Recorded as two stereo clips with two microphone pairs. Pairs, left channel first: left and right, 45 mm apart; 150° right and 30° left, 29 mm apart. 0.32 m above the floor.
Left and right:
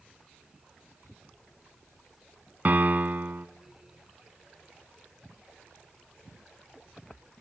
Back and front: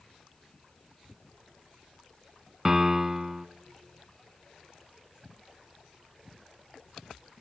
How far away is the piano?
About 0.7 m.